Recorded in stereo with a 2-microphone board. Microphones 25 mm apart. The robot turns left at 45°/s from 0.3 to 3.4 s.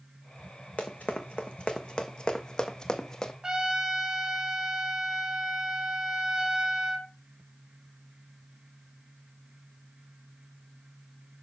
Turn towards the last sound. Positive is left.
turn(degrees=-40)  # may be behind; listen again after turning